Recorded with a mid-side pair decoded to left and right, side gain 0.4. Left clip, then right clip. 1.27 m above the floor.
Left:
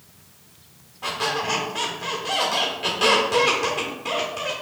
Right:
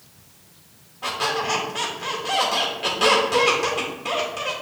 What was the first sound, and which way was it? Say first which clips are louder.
A squeak: right 1 dB; 15° right.